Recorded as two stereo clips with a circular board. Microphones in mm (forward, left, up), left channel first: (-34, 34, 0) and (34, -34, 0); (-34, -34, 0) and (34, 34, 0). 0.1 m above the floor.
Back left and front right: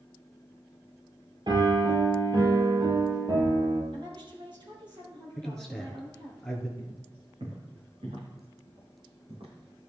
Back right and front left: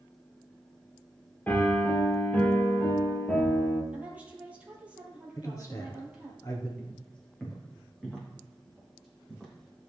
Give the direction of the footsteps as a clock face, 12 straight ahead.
2 o'clock.